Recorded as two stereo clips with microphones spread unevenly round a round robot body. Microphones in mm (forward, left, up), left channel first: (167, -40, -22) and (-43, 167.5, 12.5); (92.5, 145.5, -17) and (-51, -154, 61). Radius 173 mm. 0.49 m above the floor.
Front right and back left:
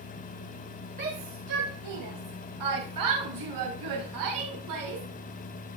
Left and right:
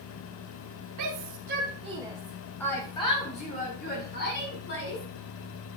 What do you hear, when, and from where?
1.0 s a shout: 155° right, 2.5 m; by 5.0 s 120° left, 6 m